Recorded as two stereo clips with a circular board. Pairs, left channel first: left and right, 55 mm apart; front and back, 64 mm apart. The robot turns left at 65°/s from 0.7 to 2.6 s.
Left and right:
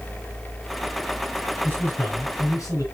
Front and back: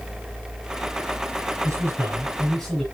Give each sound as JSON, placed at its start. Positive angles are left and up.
{"t": 1.6, "sound": "a man speaking", "azimuth_deg": 150, "distance_m": 4.5}